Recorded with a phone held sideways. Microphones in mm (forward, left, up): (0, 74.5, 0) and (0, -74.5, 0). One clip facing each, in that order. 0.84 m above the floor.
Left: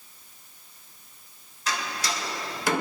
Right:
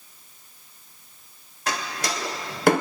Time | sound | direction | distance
1.7 | a door slam | 60° right (ahead or behind) | 3 m